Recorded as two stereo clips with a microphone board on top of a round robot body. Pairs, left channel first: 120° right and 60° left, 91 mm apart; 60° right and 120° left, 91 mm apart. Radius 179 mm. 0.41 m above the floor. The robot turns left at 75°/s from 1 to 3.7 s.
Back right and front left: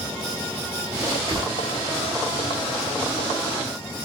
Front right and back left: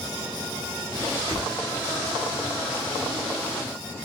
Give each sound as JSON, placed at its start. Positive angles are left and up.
{"t": 1.3, "sound": "a whoosh", "azimuth_deg": 65, "distance_m": 3.0}